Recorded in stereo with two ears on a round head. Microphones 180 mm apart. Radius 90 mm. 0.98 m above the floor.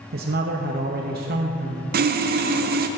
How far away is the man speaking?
About 0.7 m.